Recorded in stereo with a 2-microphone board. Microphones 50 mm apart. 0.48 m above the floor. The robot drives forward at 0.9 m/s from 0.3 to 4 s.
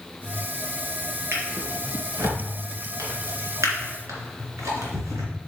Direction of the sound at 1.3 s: 55° right (ahead or behind).